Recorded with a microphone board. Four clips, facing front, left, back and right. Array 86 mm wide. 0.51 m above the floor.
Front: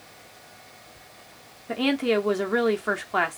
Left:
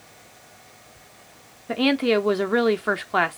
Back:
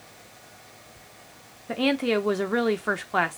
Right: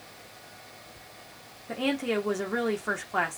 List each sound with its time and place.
1.7 s a woman speaking: 90° left, 0.7 m